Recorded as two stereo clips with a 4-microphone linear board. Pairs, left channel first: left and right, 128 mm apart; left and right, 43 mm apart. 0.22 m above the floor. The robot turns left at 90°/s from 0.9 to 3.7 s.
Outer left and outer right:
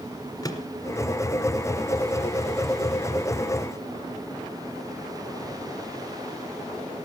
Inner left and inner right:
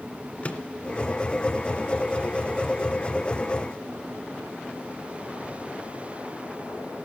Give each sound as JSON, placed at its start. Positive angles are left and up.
{"t": 0.4, "sound": "a microwave", "side_deg": 30, "distance_m": 1.8}